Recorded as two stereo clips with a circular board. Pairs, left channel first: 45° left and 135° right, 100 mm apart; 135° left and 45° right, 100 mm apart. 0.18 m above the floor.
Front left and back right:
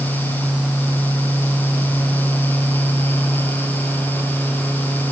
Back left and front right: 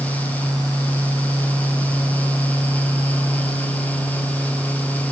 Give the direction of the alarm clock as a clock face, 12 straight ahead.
I don't hear an alarm clock.